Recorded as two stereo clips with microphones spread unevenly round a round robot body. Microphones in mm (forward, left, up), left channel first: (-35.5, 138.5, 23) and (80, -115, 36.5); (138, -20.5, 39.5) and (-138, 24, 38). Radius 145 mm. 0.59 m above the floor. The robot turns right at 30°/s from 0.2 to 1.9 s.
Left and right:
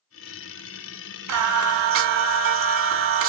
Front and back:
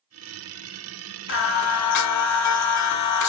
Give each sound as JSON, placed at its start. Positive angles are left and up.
{"t": 1.3, "sound": "singing", "azimuth_deg": -50, "distance_m": 0.8}